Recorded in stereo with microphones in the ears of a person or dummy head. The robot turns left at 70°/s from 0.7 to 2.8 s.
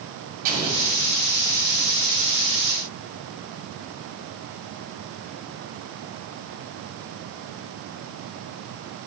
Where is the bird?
No bird in this recording.